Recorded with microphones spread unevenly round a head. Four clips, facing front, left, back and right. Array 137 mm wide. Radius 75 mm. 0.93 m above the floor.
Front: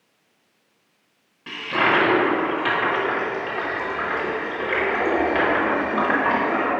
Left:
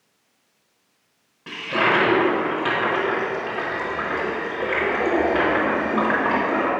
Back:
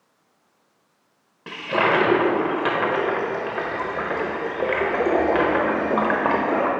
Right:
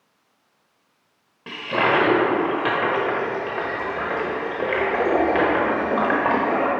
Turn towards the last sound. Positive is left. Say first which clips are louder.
# right 1 dB, back 1 dB
turn(degrees=-155)